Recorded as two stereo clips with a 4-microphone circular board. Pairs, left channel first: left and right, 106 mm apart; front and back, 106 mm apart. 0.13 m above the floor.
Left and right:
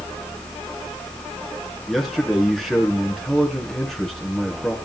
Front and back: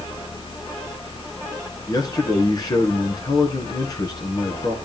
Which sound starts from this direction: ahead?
A man speaking, at 1.9 s.